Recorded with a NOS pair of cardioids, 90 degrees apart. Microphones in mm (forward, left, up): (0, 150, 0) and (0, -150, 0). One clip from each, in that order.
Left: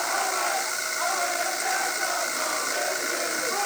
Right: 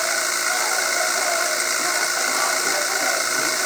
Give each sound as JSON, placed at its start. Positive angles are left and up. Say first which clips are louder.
{"t": 0.0, "sound": "a machine running", "louder": "right 3 dB", "azimuth_deg": -45}